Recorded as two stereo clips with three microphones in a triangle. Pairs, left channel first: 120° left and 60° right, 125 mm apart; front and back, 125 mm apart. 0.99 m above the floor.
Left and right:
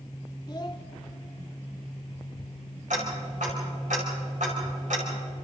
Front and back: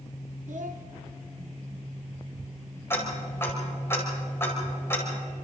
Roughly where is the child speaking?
Behind.